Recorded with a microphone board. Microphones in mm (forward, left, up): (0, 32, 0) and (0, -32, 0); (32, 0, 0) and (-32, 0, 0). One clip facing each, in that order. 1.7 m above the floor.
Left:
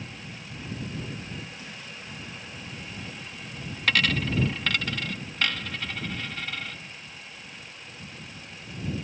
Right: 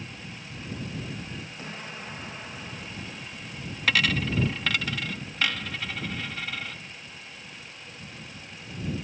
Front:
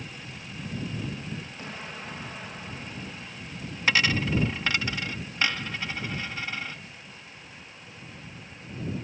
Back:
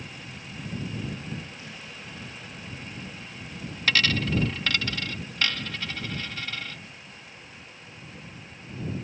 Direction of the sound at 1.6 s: 40° right.